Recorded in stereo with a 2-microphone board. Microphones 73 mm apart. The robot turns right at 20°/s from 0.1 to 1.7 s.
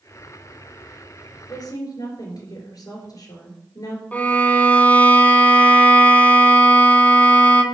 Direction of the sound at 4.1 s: 20° left (ahead or behind).